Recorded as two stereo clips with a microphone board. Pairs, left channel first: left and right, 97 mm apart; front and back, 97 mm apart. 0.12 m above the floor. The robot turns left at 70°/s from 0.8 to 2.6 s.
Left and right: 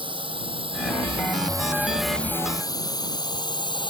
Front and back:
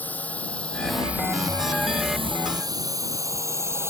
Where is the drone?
70° right; by 3.9 s 120° left.